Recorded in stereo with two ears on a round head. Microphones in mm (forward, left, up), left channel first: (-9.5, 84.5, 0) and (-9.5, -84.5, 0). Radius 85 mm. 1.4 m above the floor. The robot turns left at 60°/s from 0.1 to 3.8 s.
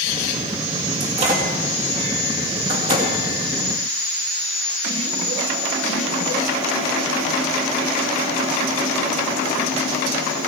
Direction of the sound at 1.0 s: 20° right (ahead or behind).